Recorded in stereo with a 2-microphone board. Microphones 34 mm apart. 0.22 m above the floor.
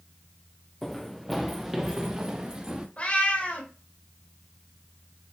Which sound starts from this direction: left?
A cat meowing, at 3.0 s.